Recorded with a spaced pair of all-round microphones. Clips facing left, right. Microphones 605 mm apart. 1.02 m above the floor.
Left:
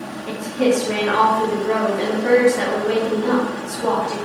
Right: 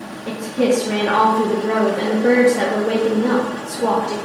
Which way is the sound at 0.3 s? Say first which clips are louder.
Right 1 dB; 65° right (ahead or behind).